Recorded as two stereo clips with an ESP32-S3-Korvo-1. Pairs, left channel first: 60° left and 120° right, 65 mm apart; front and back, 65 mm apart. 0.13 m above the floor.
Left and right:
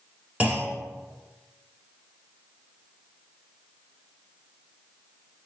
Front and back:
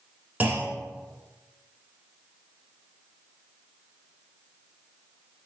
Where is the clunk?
160° right, 0.7 m.